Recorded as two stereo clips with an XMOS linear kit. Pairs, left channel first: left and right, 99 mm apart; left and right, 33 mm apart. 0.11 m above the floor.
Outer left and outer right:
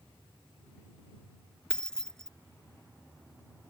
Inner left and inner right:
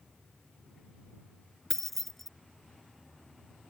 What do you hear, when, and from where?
1.7 s keys jangling: 5° left (ahead or behind)